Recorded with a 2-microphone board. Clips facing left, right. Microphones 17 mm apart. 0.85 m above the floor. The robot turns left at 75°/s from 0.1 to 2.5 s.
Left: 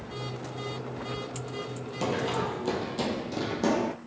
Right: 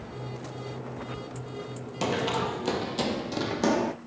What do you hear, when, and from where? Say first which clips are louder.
2.0 s running footsteps: right 2 dB; 35° right (ahead or behind), 0.9 m; by 3.9 s 25° right (ahead or behind), 1.7 m